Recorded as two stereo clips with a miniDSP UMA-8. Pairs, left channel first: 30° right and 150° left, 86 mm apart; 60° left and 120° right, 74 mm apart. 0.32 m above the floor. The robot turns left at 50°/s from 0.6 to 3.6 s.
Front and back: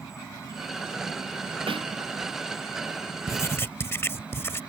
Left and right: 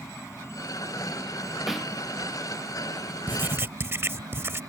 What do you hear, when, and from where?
0.0 s an insect: 15° left; by 4.7 s 135° right
1.7 s a snare drum: 155° left; by 1.9 s 140° left
3.3 s writing: 65° right; by 4.6 s 80° right